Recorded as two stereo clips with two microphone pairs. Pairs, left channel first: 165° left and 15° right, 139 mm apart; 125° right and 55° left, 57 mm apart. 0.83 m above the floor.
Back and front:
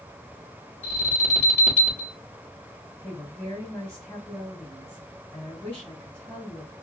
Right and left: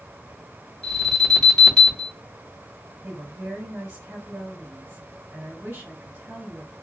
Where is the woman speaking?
90° left, 1.8 m.